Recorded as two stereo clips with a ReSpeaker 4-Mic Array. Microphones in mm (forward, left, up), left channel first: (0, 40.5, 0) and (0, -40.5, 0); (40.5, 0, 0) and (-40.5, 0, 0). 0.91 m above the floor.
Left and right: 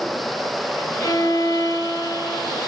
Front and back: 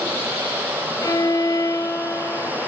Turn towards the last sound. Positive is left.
turn(degrees=45)